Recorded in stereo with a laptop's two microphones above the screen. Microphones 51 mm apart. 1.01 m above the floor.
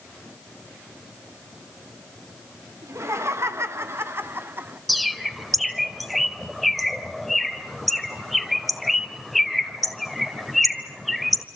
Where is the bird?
Centre (ahead or behind), 1.5 m.